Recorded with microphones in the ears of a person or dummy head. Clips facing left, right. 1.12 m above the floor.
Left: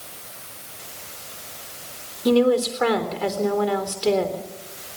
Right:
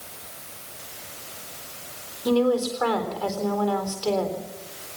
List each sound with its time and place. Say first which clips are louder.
2.2 s a woman speaking: left 3 dB; 30° left (ahead or behind), 3.5 m